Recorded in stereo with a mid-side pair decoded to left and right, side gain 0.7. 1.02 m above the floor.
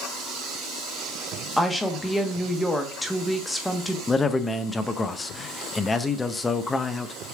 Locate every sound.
1.6 s a woman speaking: 10° left, 1.1 m
4.1 s a man speaking: 20° left, 0.6 m